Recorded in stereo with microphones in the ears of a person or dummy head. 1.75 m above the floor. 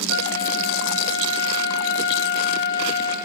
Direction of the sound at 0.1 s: 70° left (ahead or behind).